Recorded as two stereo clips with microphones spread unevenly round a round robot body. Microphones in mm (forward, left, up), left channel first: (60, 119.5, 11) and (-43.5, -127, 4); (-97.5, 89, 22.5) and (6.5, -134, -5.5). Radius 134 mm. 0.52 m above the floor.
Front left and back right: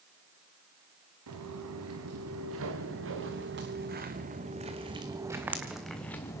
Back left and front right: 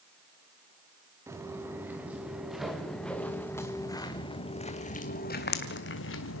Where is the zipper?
No zipper in this recording.